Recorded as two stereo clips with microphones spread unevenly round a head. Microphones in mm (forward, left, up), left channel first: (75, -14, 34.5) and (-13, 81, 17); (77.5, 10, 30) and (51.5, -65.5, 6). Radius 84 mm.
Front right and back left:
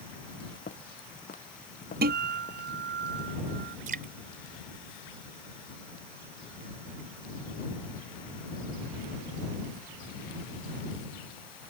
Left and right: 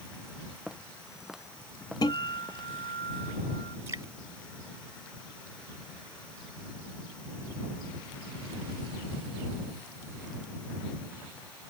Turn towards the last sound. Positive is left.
turn(degrees=175)